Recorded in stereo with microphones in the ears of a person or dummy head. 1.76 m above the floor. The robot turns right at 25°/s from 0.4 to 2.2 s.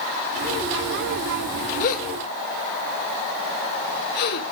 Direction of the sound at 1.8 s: 45° left (ahead or behind).